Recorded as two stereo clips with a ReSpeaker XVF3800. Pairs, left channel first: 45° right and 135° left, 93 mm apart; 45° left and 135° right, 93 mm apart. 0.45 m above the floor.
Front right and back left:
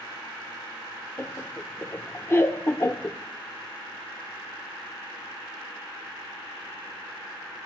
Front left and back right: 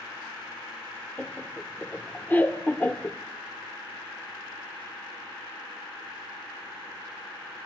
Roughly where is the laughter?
Ahead.